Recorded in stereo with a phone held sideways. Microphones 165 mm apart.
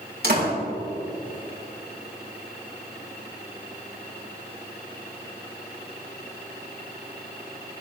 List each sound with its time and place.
0.2 s a door slam: 70° right (ahead or behind), 5 m